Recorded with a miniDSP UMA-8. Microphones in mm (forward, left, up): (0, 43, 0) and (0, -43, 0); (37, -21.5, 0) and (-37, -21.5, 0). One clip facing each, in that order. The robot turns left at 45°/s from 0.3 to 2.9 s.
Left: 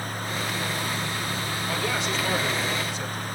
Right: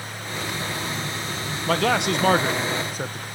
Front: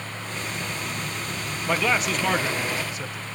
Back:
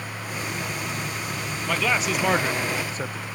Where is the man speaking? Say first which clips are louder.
Right 9 dB, front 1 dB; 75° right, 0.7 m; by 3.3 s 130° right, 0.7 m.